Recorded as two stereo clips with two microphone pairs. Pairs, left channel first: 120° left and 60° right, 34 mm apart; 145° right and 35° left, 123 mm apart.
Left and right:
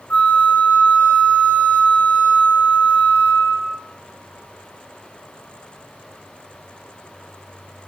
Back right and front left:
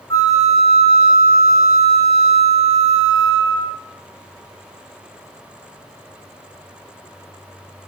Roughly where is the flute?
Behind left.